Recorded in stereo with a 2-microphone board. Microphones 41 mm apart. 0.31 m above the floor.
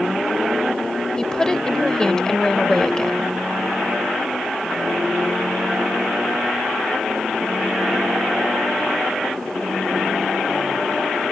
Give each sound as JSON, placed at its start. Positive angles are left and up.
{"t": 1.2, "sound": "a woman speaking", "side_deg": 15}